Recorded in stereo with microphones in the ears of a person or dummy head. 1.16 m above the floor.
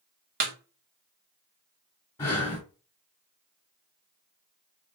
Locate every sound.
0.4 s a snare drum: 50° right (ahead or behind), 0.5 m
2.2 s breathing: 20° left (ahead or behind), 1.0 m